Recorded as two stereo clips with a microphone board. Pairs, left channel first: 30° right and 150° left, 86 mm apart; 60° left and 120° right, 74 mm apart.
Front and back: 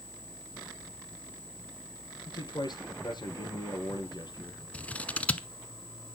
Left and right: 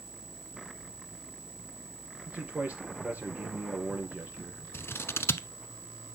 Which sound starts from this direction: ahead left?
Scissors, at 4.7 s.